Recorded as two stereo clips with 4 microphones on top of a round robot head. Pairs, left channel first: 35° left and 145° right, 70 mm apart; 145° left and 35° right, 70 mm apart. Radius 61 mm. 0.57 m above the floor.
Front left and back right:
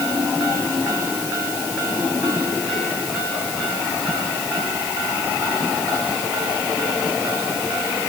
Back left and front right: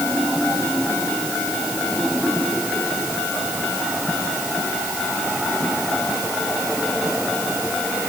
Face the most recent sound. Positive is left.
No sound to turn to.